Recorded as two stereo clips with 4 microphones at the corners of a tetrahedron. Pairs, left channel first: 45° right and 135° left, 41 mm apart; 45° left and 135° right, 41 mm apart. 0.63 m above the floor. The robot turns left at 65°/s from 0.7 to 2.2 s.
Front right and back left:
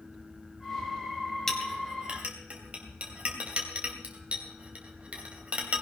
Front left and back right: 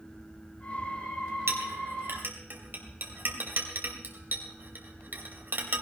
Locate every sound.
1.5 s a clink: 120° right, 2.5 m; by 5.8 s 170° right, 2.5 m